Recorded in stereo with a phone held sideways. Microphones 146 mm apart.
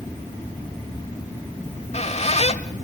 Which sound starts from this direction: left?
A squeak, at 1.6 s.